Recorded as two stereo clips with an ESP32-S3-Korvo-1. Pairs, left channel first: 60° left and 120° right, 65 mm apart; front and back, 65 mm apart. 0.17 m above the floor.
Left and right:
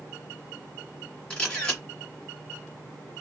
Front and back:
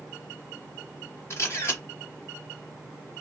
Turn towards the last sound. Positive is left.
turn(degrees=-15)